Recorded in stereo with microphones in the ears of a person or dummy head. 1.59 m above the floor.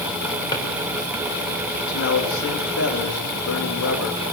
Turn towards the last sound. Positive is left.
turn(degrees=80)